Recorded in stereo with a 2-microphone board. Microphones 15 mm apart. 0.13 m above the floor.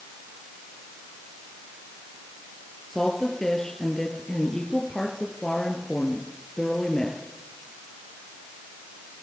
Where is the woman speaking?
45° left (ahead or behind), 3 m.